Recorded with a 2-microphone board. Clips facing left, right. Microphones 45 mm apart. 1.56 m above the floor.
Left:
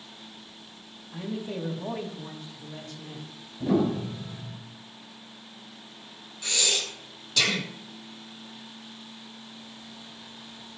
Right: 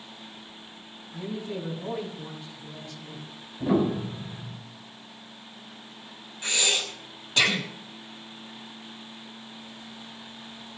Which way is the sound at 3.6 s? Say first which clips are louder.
Even; 15° right (ahead or behind).